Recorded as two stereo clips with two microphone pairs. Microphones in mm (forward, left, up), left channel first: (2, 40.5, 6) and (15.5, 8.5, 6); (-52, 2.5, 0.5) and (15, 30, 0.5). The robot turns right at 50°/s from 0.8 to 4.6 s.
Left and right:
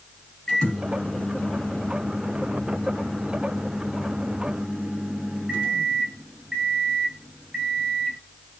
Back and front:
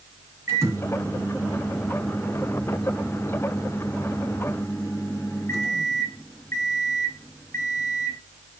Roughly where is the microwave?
Ahead left.